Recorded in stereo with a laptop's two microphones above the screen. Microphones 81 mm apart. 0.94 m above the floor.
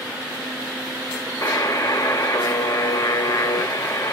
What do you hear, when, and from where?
1.4 s a buzzer: 45° left (ahead or behind), 0.6 m